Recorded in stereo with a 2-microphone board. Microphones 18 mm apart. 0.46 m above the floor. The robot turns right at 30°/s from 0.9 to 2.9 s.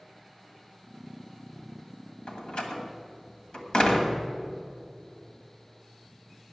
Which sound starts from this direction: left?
A door slam, at 2.3 s.